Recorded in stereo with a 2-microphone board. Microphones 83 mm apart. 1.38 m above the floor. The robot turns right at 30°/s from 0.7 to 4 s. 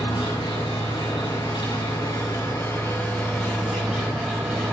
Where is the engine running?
90° left, 5.5 m; by 4.7 s 175° right, 5.5 m.